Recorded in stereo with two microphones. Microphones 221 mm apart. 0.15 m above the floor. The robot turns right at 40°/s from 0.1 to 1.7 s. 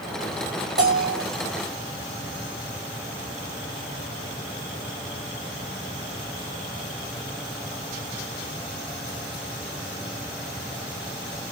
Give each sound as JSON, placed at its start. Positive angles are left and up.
{"t": 0.8, "sound": "a bell", "side_deg": -45, "distance_m": 5.0}